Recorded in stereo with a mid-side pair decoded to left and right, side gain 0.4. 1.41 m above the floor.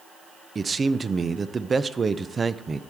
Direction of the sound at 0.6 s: 35° right.